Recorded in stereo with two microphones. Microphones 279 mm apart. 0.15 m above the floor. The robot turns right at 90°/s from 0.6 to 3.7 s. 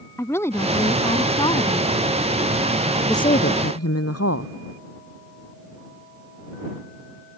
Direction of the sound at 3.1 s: 5° left.